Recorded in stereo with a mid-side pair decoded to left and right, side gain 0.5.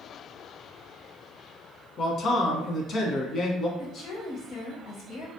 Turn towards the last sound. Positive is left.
turn(degrees=60)